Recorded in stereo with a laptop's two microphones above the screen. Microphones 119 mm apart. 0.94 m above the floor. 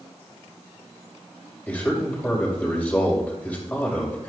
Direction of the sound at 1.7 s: 15° left (ahead or behind).